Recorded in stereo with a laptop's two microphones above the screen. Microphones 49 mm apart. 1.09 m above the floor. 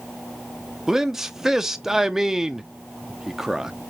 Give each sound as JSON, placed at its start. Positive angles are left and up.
{"t": 0.9, "sound": "a man speaking", "side_deg": -10, "distance_m": 0.5}